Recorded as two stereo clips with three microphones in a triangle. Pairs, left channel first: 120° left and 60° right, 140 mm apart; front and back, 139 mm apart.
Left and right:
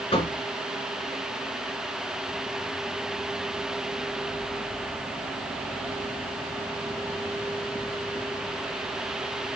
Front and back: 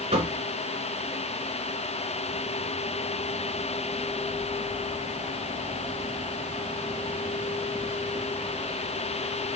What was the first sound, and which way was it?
Knocking, 150° left.